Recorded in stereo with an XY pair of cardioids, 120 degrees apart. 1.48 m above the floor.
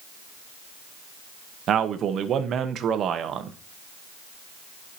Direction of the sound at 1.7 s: 55° right.